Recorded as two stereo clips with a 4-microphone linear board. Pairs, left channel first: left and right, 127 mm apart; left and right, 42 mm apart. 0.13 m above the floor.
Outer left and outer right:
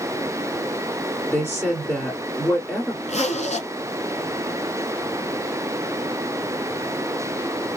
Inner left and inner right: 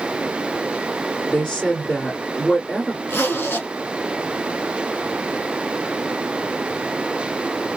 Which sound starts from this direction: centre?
A woman speaking, at 1.3 s.